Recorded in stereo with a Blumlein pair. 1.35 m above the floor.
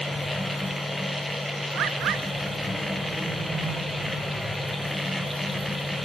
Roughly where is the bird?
Ahead right.